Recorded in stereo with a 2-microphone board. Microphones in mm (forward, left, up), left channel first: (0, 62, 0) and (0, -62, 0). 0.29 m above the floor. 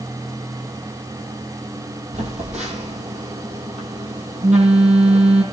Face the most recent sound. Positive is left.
turn(degrees=-85)